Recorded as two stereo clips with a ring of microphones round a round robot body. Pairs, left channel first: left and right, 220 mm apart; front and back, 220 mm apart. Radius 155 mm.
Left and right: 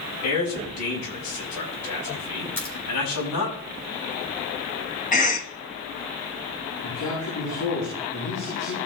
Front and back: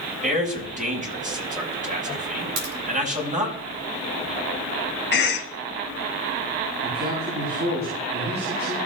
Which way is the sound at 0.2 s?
125° left.